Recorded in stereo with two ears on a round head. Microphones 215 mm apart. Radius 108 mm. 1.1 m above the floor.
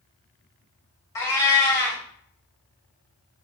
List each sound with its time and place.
1.1 s a cat meowing: 15° left (ahead or behind), 0.9 m